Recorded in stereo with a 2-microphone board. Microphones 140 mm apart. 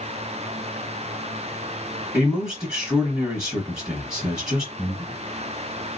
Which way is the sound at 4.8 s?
10° right (ahead or behind).